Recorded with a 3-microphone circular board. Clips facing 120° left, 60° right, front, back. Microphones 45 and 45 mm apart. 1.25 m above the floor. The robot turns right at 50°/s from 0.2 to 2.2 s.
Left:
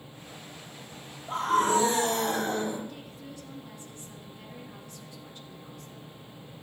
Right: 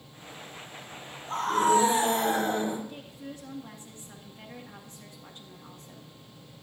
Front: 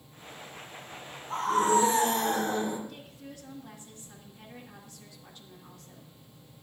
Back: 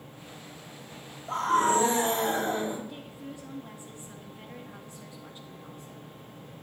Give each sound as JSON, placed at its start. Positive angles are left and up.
{"t": 1.3, "sound": "a scream", "azimuth_deg": -165, "distance_m": 4.0}
{"t": 2.9, "sound": "a woman speaking", "azimuth_deg": -115, "distance_m": 1.7}